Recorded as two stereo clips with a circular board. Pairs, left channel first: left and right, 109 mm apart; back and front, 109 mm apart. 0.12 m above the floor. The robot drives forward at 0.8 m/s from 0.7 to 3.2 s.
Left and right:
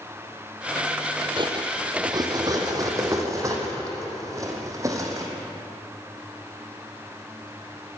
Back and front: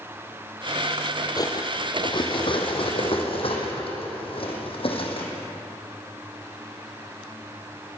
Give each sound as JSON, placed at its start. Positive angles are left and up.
{"t": 1.4, "sound": "cutlery clinking", "azimuth_deg": -130, "distance_m": 2.0}